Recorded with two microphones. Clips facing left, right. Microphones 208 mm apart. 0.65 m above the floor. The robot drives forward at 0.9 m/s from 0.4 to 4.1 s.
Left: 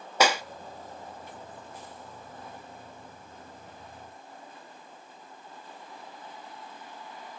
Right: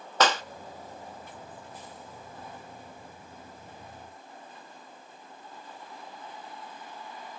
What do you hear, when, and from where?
0.2 s a clap: 10° left (ahead or behind), 0.6 m